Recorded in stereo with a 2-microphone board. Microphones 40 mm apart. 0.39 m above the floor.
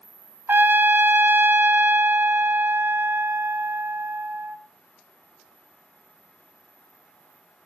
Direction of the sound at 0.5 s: 75° right (ahead or behind).